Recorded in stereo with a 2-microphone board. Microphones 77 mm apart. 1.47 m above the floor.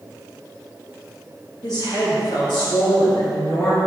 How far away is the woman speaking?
About 1.7 m.